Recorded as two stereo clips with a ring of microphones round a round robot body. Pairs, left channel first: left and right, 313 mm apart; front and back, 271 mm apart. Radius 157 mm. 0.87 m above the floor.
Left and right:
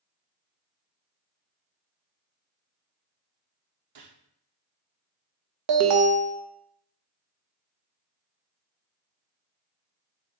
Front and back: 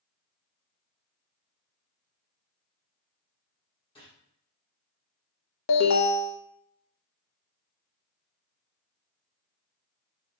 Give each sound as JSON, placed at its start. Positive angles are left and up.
{"t": 4.0, "sound": "a gunshot", "azimuth_deg": -75, "distance_m": 0.9}
{"t": 5.7, "sound": "an alarm", "azimuth_deg": -50, "distance_m": 0.6}